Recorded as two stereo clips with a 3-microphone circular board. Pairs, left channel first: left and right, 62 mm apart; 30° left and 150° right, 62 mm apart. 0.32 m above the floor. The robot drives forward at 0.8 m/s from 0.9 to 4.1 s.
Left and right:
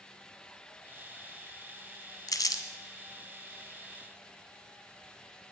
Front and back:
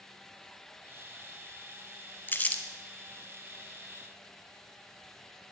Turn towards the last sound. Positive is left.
turn(degrees=140)